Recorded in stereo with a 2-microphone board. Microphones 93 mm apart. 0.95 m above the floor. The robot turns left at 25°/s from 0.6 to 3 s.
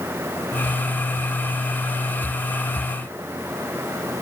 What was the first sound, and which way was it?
Only background noise.